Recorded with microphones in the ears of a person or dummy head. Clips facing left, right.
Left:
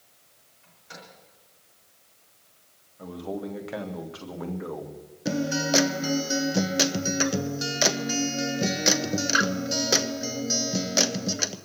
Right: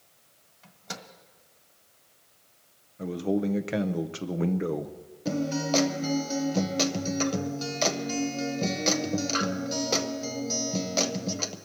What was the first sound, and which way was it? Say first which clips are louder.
A microwave: right 5 dB; 65° right (ahead or behind).